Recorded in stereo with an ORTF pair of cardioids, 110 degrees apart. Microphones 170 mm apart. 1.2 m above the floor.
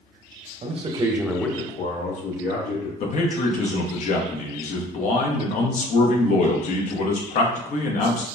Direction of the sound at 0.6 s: 45° right.